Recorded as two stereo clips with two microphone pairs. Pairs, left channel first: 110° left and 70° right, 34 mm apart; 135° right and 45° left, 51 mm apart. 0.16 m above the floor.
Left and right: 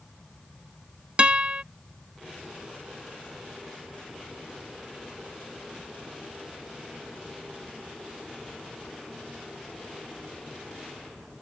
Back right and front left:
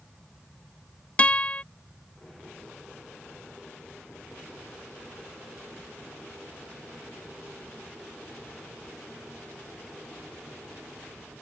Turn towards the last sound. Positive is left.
turn(degrees=-100)